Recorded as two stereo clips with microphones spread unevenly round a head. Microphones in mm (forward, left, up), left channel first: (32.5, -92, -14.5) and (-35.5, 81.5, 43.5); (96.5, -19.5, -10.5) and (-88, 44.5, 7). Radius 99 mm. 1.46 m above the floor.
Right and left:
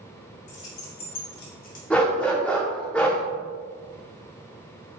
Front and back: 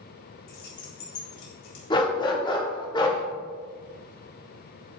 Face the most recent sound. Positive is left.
turn(degrees=40)